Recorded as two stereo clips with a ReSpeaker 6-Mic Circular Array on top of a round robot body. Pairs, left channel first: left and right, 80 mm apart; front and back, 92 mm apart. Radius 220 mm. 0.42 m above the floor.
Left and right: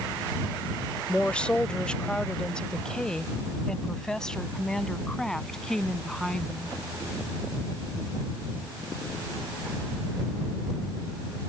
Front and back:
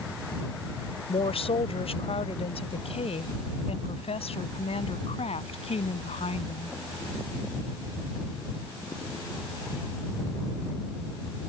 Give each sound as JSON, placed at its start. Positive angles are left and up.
{"t": 1.1, "sound": "a woman speaking", "azimuth_deg": 15}